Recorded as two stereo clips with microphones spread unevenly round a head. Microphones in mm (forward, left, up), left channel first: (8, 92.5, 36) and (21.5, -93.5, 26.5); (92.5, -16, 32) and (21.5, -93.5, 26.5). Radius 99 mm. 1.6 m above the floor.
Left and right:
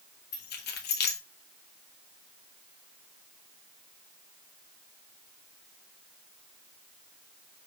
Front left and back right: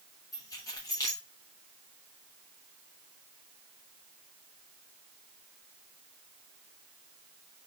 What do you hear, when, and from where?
0.3 s keys jangling: 105° left, 1.1 m